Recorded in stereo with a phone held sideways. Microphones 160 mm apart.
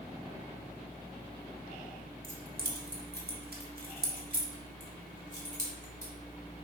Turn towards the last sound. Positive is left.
turn(degrees=-50)  # may be behind; listen again after turning